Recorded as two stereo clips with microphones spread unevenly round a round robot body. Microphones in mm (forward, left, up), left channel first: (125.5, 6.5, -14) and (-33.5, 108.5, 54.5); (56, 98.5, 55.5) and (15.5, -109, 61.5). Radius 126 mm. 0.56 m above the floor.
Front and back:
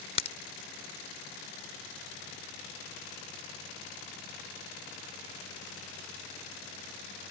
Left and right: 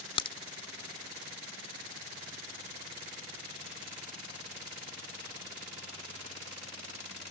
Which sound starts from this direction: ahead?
A crack, at 0.2 s.